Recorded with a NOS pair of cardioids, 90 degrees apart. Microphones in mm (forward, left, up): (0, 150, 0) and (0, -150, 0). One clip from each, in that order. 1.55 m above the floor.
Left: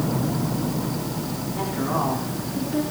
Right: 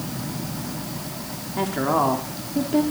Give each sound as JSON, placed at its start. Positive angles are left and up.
{"t": 1.6, "sound": "a woman speaking", "azimuth_deg": -40, "distance_m": 4.0}